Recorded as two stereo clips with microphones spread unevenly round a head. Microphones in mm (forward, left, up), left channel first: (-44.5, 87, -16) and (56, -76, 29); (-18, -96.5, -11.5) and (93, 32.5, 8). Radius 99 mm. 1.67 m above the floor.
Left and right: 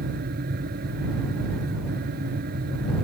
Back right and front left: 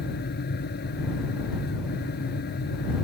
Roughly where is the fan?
Right.